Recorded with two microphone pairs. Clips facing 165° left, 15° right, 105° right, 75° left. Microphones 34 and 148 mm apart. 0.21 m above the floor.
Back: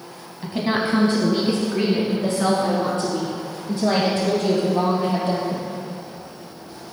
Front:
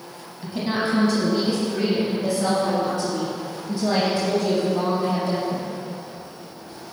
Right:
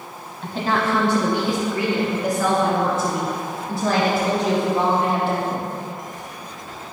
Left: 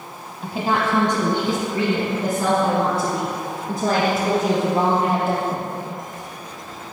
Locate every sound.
0.4 s a woman speaking: 150° left, 1.0 m; by 5.7 s 125° left, 4 m